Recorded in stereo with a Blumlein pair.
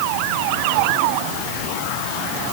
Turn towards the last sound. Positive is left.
No sound to turn to.